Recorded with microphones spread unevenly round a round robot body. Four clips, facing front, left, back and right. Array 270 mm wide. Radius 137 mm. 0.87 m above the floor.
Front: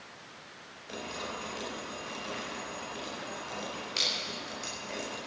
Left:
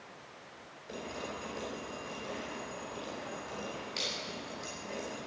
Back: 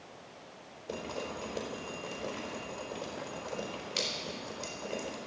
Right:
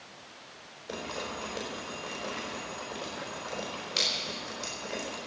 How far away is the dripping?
About 4 m.